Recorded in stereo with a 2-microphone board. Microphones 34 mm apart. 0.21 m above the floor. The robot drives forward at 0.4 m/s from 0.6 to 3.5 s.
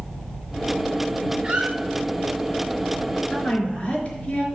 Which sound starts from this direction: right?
A squeak, at 1.4 s.